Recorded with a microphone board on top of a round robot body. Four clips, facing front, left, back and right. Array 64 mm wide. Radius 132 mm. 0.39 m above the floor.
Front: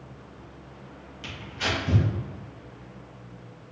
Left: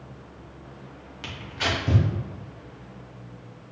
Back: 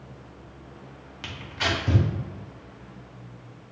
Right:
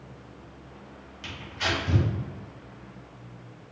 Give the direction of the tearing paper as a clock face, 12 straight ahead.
7 o'clock.